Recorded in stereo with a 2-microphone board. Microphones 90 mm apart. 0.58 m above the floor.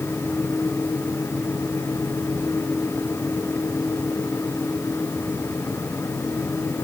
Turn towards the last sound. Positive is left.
No sound to turn to.